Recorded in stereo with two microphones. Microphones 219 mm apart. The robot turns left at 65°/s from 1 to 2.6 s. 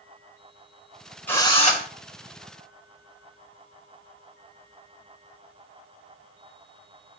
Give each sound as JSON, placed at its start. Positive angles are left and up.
{"t": 1.3, "sound": "a drill", "azimuth_deg": 175, "distance_m": 4.5}